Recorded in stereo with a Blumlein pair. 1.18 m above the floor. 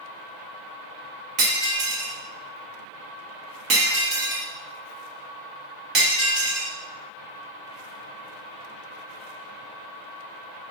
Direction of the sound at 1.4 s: 35° right.